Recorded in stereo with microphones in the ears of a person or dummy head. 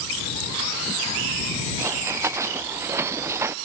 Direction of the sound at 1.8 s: 15° right (ahead or behind).